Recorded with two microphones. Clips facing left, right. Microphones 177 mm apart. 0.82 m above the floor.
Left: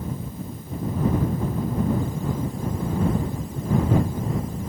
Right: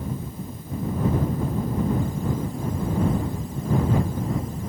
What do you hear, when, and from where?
Only background noise.